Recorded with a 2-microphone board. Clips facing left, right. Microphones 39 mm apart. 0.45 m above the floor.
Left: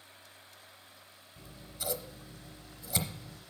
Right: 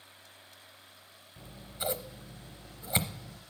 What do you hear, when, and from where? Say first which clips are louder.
1.4 s scissors: right 5 dB; 35° right (ahead or behind), 0.7 m